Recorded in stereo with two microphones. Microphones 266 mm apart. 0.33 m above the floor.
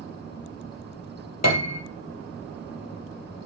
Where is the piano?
70° left (ahead or behind), 1.8 m.